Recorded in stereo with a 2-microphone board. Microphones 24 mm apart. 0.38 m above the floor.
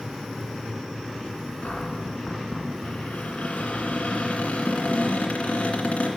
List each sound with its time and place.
1.6 s a cupboard door: 75° left (ahead or behind), 2.5 m